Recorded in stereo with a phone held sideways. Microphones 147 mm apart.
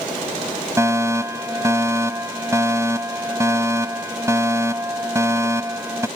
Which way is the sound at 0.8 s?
20° right (ahead or behind).